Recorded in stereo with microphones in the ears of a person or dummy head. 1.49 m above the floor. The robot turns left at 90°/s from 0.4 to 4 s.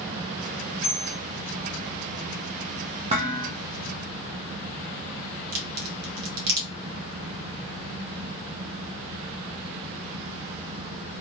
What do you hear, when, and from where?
0.8 s a bell: 170° right, 1.5 m; by 1.2 s 160° left, 1.5 m
3.1 s dishes clattering: 40° right, 0.8 m; by 3.5 s 80° right, 0.8 m
5.5 s a crack: 75° right (ahead or behind), 1.1 m